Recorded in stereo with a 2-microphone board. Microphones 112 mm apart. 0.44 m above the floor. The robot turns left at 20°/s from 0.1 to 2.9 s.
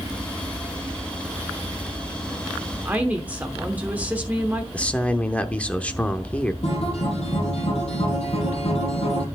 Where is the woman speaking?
15° right (ahead or behind), 1.0 m.